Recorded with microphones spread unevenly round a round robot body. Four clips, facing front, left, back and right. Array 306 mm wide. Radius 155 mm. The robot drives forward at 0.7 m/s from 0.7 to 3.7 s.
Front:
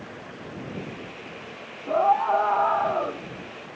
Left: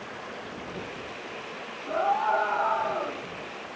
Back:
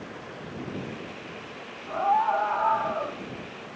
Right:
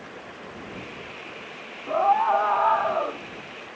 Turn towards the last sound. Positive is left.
turn(degrees=-60)